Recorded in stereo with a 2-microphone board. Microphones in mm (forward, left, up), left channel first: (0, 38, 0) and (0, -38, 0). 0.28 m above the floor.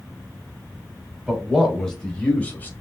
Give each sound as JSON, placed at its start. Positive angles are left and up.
{"t": 1.3, "sound": "a man speaking", "side_deg": 0, "distance_m": 1.2}